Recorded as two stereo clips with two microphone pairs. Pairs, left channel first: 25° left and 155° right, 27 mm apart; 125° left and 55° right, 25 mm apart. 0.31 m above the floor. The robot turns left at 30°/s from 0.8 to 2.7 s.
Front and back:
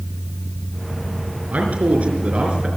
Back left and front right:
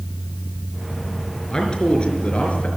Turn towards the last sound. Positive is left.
turn(degrees=150)